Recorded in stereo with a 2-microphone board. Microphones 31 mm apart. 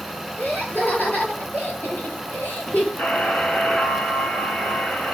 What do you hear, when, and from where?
0.4 s laughter: 70° left (ahead or behind), 9 m; by 2.9 s 75° left (ahead or behind), 7.5 m
3.0 s a buzzer: 85° left, 8.5 m